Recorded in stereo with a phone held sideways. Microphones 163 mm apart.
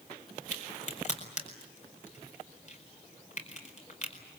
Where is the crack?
45° left (ahead or behind), 4.5 m.